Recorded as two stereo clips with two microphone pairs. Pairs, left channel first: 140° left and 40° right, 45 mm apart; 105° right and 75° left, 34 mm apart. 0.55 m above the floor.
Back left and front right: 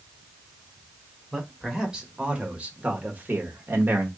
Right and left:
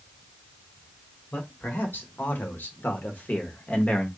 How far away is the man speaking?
About 1.8 m.